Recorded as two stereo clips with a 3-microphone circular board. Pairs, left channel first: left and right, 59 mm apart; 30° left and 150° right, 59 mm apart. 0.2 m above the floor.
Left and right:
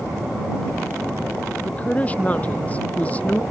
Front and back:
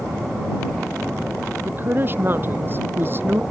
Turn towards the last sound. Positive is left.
turn(degrees=155)